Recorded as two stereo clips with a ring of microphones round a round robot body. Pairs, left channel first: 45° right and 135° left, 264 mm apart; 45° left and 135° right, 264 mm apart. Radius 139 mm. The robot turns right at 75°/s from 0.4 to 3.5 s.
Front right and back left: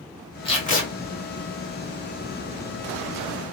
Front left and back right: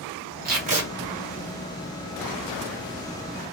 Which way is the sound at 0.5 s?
105° right.